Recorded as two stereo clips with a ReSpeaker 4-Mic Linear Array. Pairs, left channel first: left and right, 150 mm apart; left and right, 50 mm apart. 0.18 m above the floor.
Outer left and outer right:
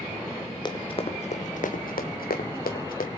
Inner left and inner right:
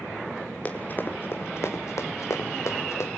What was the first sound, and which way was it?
Running footsteps, 30° left (ahead or behind).